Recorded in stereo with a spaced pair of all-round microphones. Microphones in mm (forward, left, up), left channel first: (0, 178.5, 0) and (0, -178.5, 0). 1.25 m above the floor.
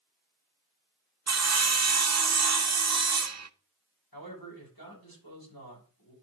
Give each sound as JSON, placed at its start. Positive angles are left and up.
{"t": 1.3, "sound": "sawing", "side_deg": -50, "distance_m": 0.5}
{"t": 4.1, "sound": "a man speaking", "side_deg": 85, "distance_m": 7.0}